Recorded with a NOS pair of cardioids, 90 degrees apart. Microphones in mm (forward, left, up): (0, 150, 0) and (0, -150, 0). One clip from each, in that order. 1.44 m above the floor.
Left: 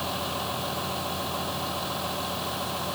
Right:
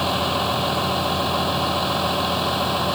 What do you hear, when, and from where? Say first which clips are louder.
0.0 s a vehicle: right 9 dB; 65° right